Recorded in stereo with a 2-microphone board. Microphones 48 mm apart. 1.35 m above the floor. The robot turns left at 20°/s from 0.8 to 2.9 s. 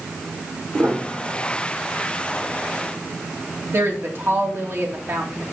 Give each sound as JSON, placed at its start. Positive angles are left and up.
{"t": 0.7, "sound": "a piano", "side_deg": -55, "distance_m": 2.0}
{"t": 3.7, "sound": "a woman speaking", "side_deg": -50, "distance_m": 2.5}